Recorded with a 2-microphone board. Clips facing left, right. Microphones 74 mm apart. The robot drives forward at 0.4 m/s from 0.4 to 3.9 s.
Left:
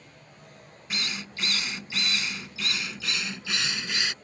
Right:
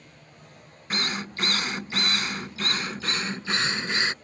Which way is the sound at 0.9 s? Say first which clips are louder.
Right 5 dB; 45° right (ahead or behind).